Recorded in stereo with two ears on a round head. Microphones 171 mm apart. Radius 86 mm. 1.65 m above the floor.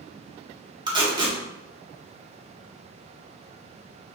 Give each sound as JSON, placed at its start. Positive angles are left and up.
{"t": 0.9, "sound": "tape being pulled", "side_deg": -25, "distance_m": 0.6}